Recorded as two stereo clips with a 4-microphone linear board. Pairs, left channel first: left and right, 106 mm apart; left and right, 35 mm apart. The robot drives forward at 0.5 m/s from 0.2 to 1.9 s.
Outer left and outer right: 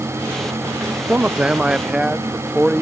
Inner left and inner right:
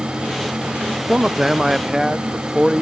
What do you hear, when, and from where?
1.1 s a man speaking: 15° right (ahead or behind); by 2.8 s 10° right (ahead or behind)